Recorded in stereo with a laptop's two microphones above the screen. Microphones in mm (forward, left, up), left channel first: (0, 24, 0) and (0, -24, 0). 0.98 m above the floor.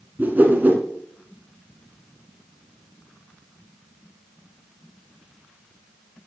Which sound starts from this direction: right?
A whoosh, at 0.2 s.